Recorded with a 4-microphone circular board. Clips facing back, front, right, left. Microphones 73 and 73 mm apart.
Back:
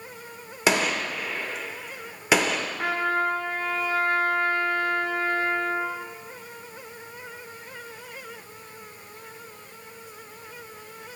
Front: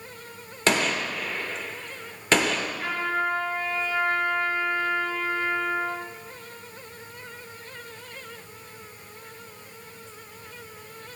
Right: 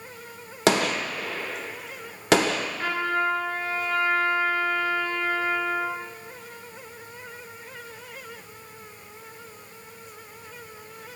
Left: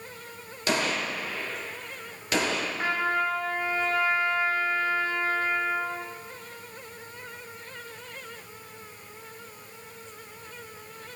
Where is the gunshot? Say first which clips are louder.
Back 1 dB, right 5 dB; 100° right, 1.0 m.